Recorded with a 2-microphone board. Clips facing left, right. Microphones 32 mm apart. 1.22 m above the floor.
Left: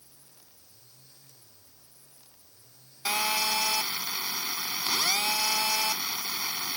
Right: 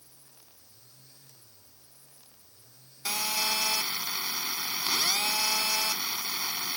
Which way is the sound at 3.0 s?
25° left (ahead or behind).